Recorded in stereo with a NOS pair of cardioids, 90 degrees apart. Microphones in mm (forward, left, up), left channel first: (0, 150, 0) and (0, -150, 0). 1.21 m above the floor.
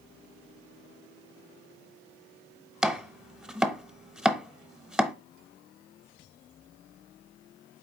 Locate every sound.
2.8 s chopping: 5° right, 0.7 m